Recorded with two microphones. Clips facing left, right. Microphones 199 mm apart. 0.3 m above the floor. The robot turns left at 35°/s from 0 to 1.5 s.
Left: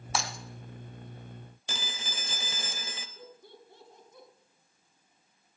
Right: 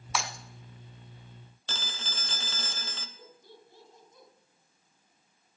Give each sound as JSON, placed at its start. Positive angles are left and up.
{"t": 0.1, "sound": "breaking glass", "side_deg": 40, "distance_m": 1.2}
{"t": 1.7, "sound": "a phone ringing", "side_deg": 15, "distance_m": 0.8}
{"t": 3.2, "sound": "laughter", "side_deg": 60, "distance_m": 3.0}